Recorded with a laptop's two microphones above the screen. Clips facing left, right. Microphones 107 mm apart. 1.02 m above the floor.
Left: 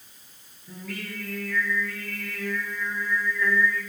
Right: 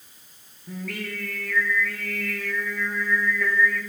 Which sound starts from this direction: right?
Singing, at 0.7 s.